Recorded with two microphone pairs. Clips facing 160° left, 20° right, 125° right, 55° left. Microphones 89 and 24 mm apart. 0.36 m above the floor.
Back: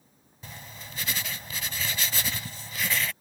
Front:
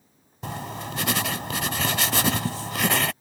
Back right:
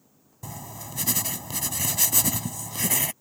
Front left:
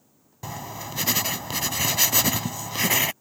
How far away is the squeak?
I don't hear a squeak.